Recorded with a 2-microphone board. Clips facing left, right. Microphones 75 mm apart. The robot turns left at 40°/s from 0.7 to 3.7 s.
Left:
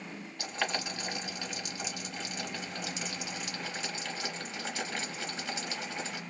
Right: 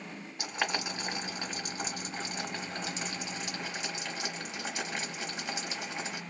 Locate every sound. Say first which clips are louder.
0.4 s boiling: right 1 dB; 15° right (ahead or behind), 1.6 m; by 6.2 s 20° right (ahead or behind), 1.6 m